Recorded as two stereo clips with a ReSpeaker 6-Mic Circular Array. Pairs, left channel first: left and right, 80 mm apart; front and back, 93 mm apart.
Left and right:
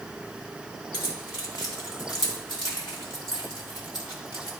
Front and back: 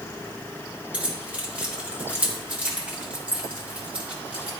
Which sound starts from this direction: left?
Keys jangling, at 0.9 s.